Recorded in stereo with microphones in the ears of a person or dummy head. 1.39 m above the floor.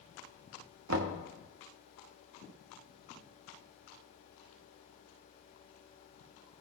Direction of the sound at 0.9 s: 75° right (ahead or behind).